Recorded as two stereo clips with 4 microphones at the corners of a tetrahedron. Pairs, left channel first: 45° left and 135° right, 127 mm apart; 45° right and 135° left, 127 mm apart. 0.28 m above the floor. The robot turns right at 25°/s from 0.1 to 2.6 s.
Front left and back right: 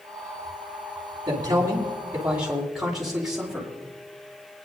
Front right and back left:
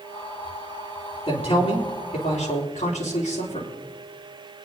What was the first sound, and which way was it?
A man speaking, 80° right.